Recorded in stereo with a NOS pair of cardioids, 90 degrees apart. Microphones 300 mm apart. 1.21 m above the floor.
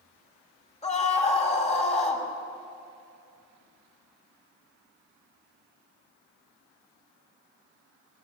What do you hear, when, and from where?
0.8 s a scream: 20° left, 6.5 m